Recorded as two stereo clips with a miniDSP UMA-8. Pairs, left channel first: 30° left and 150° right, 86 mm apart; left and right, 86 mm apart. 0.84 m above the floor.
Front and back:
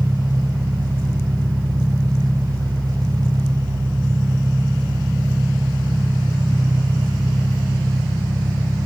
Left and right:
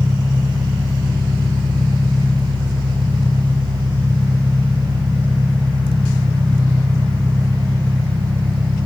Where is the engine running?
110° right, 2.5 m.